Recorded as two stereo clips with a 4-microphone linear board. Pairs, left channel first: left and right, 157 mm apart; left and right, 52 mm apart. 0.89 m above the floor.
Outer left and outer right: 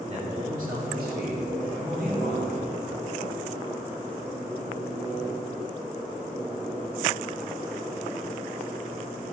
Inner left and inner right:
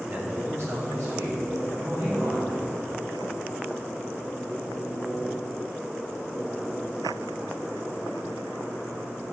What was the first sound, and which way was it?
A man speaking, 45° right (ahead or behind).